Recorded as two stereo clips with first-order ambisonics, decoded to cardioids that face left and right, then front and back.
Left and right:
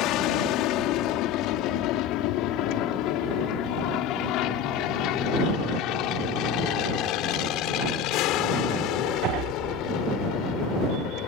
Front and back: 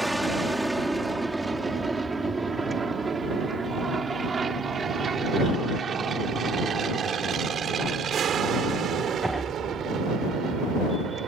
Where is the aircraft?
95° left; by 11.3 s 125° left.